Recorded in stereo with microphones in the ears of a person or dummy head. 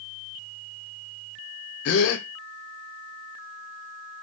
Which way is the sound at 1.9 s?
55° left (ahead or behind).